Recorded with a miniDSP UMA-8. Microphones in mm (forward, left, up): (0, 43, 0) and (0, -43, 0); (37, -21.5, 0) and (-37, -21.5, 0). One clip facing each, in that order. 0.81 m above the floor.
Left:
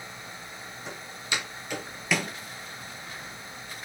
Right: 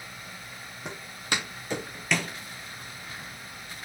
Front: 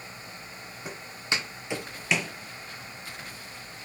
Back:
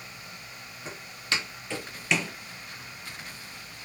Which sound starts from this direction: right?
Footsteps, at 0.8 s.